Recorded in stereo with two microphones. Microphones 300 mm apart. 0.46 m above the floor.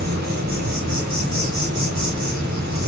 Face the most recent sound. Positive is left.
turn(degrees=-75)  # may be behind; listen again after turning